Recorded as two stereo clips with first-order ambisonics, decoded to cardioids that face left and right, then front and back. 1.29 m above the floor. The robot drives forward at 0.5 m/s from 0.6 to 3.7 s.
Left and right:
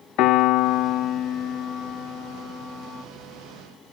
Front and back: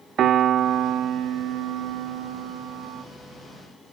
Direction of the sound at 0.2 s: 125° left.